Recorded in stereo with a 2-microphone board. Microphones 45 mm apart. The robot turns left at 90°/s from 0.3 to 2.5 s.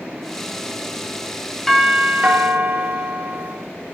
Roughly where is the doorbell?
Ahead.